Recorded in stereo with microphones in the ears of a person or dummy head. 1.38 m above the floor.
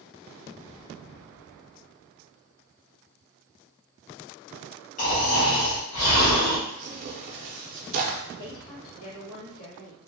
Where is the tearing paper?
45° right (ahead or behind), 0.5 m.